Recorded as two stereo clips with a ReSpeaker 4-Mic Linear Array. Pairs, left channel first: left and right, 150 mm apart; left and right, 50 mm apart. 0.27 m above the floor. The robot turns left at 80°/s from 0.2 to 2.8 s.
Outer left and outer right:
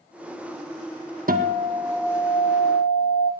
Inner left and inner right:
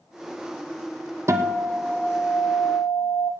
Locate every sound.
1.3 s a guitar: 110° right, 1.5 m; by 3.3 s 130° left, 1.5 m